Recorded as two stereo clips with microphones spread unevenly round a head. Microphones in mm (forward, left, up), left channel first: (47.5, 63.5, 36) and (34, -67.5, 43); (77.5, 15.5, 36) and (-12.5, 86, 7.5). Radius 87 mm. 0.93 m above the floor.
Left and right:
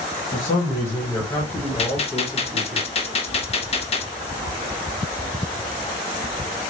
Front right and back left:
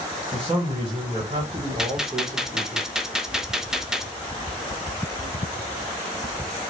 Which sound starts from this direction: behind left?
A man speaking, at 0.3 s.